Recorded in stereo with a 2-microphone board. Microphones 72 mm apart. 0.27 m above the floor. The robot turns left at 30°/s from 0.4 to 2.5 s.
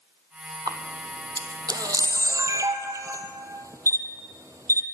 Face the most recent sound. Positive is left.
turn(degrees=-50)  # may be behind; listen again after turning